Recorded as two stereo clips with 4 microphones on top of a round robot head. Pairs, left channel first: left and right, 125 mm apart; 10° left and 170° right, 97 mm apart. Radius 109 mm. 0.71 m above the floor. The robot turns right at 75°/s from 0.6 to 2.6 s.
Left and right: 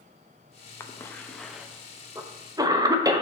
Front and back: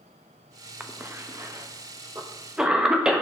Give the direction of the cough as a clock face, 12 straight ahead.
8 o'clock.